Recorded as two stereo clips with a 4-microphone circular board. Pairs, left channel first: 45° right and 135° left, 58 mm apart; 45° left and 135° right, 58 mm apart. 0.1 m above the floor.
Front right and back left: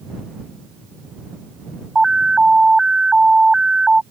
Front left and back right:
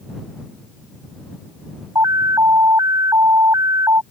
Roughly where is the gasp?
No gasp in this recording.